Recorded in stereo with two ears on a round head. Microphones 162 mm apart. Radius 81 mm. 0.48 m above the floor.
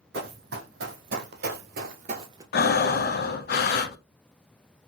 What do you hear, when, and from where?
0.1 s running footsteps: 60° right (ahead or behind), 1.6 m; by 2.4 s 20° right (ahead or behind), 0.6 m
2.5 s breathing: 55° left (ahead or behind), 0.5 m